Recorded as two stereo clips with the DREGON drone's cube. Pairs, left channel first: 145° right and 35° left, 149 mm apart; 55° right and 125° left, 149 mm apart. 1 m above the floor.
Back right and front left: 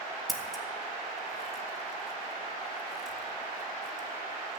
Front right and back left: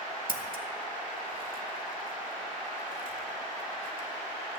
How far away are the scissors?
About 1.8 m.